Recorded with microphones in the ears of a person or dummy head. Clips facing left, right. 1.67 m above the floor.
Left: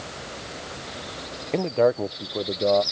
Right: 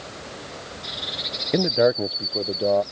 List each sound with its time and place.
1.5 s a man speaking: 15° right (ahead or behind); by 2.8 s centre (ahead or behind)